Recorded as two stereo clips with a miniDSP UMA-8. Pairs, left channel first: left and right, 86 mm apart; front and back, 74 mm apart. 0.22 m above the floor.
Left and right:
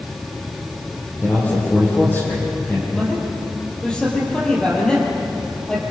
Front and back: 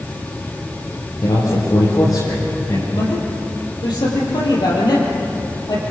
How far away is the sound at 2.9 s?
About 6 m.